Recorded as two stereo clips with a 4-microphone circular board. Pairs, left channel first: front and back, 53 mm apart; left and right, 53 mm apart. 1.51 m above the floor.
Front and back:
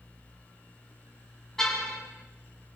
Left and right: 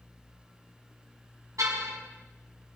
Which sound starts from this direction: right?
A car horn, at 1.6 s.